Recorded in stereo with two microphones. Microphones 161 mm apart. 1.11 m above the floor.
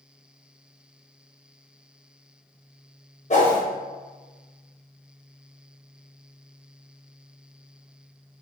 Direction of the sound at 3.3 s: 45° left (ahead or behind).